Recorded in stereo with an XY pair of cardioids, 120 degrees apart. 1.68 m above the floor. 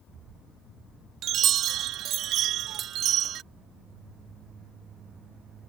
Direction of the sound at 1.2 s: 65° right.